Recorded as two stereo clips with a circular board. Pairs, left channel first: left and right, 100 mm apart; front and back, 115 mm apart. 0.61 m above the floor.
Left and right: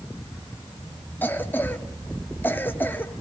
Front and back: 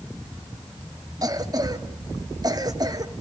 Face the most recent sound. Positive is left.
turn(degrees=150)